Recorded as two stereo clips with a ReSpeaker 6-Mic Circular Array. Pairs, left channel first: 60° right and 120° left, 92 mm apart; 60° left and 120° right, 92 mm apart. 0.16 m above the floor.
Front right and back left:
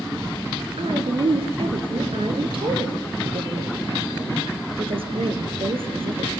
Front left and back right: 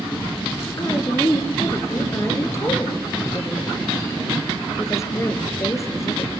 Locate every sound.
0.8 s a woman speaking: 115° left, 3 m